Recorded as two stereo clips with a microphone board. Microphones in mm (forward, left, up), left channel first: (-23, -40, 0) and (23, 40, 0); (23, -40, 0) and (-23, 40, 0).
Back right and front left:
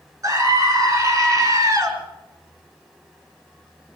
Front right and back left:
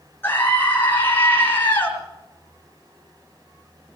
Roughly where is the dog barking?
I don't hear a dog barking.